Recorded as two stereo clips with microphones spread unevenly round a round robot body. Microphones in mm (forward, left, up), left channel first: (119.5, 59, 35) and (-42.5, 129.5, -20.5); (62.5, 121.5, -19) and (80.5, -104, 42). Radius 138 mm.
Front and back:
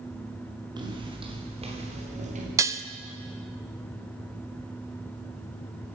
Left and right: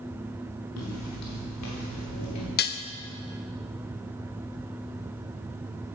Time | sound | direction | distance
0.8 | footsteps | 90° left | 4.5 m
2.6 | dishes clattering | 100° left | 0.7 m